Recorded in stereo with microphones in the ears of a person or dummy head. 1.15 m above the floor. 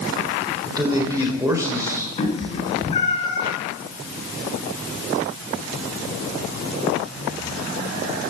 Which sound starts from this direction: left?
A cat meowing, at 2.2 s.